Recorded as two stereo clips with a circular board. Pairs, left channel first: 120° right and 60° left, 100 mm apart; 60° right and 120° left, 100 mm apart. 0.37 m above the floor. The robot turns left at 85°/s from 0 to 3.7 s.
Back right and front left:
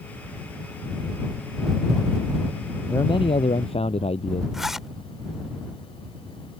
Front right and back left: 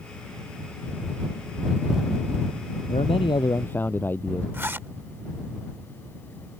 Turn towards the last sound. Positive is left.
turn(degrees=140)